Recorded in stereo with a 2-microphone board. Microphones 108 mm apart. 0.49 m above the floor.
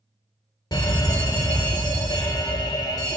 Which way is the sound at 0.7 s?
40° left (ahead or behind).